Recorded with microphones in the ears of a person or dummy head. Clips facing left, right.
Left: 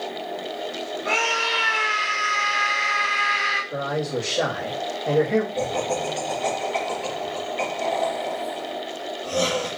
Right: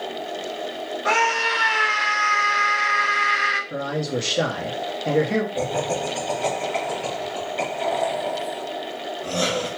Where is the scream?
70° right (ahead or behind), 0.8 m.